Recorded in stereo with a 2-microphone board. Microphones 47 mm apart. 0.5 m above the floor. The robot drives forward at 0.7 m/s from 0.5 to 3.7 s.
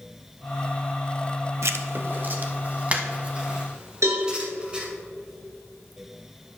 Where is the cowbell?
80° right, 3.5 m.